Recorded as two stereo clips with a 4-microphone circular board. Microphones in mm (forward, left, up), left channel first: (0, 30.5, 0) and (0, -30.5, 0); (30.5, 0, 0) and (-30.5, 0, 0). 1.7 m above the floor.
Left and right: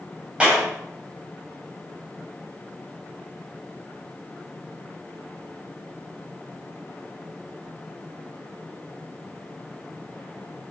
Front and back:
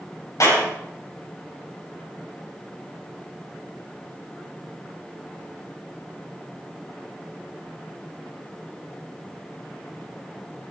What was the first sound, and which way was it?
A clap, 20° right.